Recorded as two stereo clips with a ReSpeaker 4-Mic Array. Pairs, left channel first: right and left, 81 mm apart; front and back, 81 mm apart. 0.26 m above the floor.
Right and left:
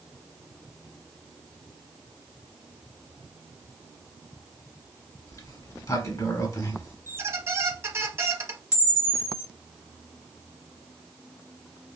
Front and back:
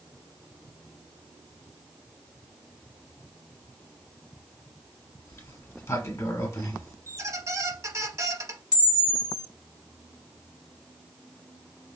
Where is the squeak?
140° left, 0.6 m.